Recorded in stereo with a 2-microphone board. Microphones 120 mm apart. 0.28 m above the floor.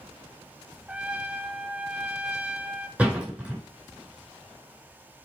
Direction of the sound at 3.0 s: 10° right (ahead or behind).